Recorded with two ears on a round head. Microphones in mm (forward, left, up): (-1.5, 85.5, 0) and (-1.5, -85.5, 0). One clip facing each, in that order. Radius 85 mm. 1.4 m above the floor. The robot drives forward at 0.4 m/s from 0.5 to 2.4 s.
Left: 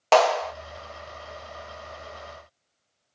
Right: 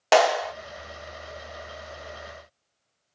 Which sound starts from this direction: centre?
A clap, at 0.1 s.